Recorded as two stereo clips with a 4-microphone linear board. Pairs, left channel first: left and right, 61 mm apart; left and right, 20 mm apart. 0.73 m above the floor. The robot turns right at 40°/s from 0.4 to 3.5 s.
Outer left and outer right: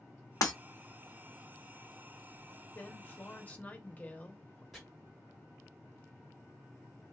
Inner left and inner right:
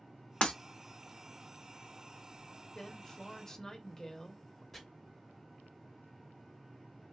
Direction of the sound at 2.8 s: 105° left.